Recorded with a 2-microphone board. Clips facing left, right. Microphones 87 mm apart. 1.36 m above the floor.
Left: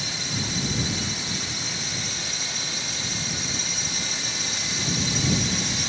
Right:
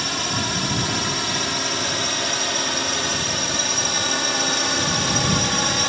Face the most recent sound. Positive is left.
turn(degrees=-65)  # may be behind; listen again after turning